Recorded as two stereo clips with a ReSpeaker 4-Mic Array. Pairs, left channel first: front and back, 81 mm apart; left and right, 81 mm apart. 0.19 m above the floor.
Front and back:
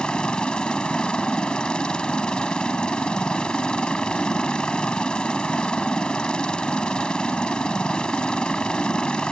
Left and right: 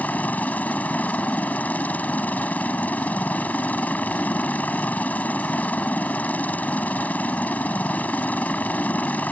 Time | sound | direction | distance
0.0 | a helicopter | 60° left | ?